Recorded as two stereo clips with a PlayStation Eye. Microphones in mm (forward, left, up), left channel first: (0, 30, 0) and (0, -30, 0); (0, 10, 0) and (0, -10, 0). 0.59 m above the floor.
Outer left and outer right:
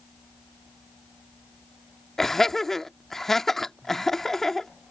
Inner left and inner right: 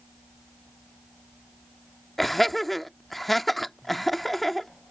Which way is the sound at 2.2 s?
5° left (ahead or behind).